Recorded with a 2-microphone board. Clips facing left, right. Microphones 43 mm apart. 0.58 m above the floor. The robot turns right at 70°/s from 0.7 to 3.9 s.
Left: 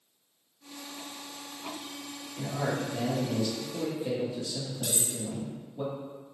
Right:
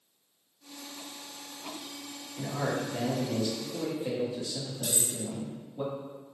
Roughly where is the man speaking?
Centre.